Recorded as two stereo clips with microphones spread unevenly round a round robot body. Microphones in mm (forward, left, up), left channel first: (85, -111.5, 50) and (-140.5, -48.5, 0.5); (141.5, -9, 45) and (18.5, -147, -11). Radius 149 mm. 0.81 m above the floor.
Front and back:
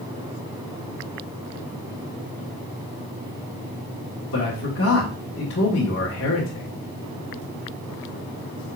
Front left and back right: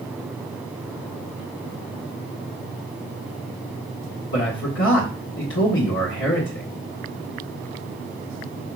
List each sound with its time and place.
4.3 s a man speaking: 35° left, 1.7 m